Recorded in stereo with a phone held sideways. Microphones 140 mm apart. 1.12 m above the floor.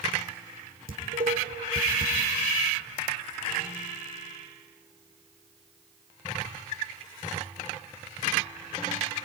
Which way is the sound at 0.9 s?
80° right.